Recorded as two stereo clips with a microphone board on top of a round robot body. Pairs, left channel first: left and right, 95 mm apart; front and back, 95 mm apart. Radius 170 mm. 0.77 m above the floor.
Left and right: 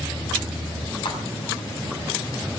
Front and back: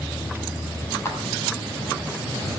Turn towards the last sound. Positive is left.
turn(degrees=60)